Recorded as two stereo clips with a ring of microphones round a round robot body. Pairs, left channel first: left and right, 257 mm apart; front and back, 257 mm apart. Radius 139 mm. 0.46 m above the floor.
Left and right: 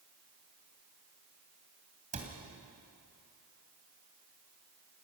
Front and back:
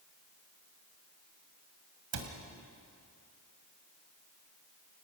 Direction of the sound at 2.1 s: 155° right.